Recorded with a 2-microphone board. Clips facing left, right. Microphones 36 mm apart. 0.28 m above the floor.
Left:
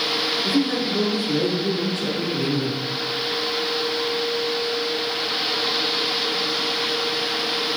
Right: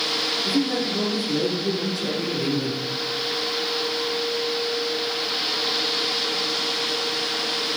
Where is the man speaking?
55° left (ahead or behind), 5.5 m; by 2.8 s 30° left (ahead or behind), 3.5 m.